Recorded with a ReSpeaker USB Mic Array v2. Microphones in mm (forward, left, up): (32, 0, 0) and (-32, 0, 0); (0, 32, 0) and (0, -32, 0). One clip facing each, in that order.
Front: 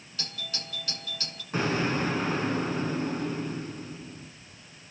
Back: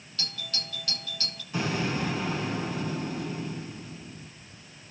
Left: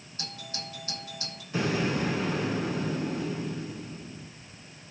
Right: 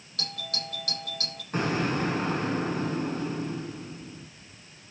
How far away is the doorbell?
About 9 m.